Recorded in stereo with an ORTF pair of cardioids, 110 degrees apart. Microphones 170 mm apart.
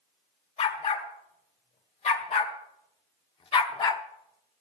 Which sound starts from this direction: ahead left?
A dog barking, at 0.6 s.